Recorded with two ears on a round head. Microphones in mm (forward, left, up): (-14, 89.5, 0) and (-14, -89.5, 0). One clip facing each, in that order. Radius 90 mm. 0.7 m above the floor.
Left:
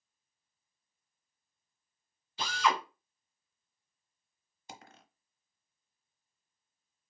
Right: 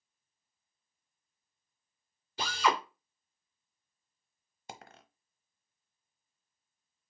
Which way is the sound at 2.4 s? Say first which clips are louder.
Right 1 dB; 35° right (ahead or behind).